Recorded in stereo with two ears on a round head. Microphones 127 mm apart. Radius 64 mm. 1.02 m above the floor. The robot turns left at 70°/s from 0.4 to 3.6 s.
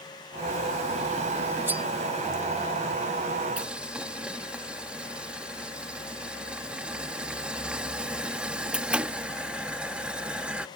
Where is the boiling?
10° right (ahead or behind).